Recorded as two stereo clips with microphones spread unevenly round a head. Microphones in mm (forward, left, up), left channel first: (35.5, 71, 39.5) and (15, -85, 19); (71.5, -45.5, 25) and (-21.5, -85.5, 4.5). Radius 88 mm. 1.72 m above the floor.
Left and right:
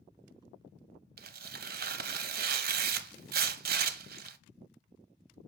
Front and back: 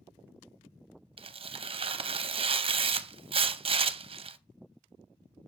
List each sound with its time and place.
1.2 s tearing paper: 130° right, 0.6 m